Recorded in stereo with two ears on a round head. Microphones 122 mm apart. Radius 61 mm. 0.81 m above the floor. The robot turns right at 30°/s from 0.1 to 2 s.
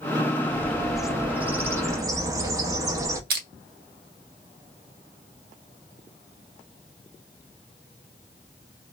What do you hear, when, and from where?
0.4 s a bird: 165° left, 0.6 m; by 3.2 s 150° right, 0.6 m
3.3 s crushing: 80° right, 0.8 m